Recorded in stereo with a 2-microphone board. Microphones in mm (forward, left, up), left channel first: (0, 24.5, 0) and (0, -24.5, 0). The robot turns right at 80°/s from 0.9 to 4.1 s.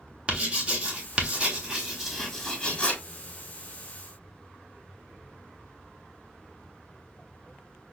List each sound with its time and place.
0.3 s writing: 20° right (ahead or behind), 1.1 m; by 3.0 s 20° left (ahead or behind), 1.1 m